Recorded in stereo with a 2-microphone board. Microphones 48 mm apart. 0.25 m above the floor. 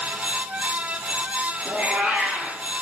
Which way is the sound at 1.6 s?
30° right (ahead or behind).